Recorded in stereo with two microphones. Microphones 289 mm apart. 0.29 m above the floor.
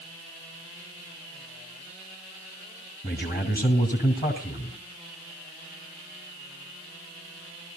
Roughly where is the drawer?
I don't hear a drawer.